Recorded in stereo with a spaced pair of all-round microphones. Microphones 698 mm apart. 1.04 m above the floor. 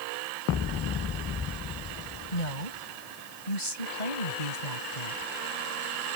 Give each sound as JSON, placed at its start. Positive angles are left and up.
{"t": 2.3, "sound": "a woman speaking", "side_deg": 75}